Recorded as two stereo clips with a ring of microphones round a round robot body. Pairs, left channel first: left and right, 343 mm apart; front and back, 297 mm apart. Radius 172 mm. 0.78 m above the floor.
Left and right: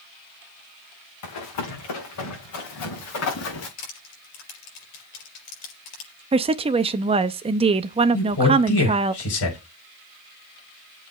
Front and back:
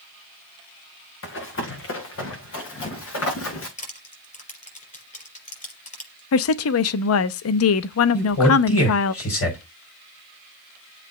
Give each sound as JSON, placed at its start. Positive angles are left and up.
{"t": 1.2, "sound": "running footsteps", "azimuth_deg": 50, "distance_m": 4.0}
{"t": 3.8, "sound": "crushing", "azimuth_deg": 65, "distance_m": 4.5}
{"t": 6.3, "sound": "a woman speaking", "azimuth_deg": -20, "distance_m": 0.5}
{"t": 8.1, "sound": "a man speaking", "azimuth_deg": 40, "distance_m": 5.0}